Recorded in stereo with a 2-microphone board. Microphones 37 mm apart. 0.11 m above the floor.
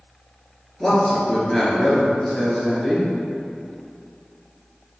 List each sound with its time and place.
0.8 s a man speaking: 15° left (ahead or behind), 1.9 m